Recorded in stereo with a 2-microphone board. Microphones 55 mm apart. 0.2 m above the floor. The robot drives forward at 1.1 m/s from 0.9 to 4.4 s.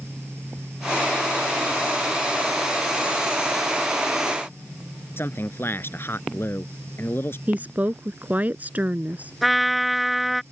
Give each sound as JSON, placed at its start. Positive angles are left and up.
{"t": 5.2, "sound": "a man speaking", "side_deg": 45}
{"t": 7.5, "sound": "a woman speaking", "side_deg": -30}
{"t": 9.4, "sound": "a trumpet", "side_deg": 0}